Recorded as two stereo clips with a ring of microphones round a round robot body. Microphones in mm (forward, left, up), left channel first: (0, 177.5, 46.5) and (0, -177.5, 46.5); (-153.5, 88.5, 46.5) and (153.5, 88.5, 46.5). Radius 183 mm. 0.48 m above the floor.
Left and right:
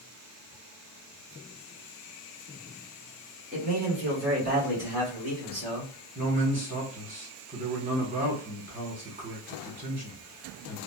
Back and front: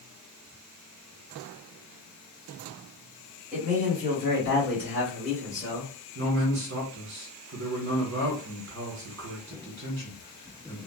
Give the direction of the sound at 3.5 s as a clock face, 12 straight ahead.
1 o'clock.